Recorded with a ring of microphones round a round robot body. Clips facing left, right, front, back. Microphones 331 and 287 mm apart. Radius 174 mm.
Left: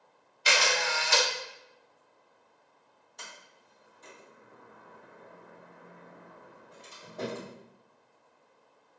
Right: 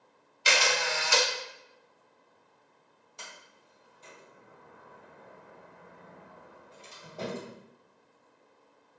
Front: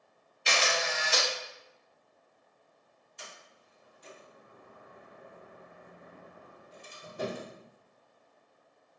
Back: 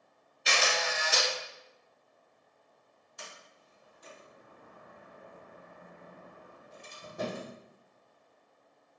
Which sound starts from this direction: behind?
A sliding door, at 3.2 s.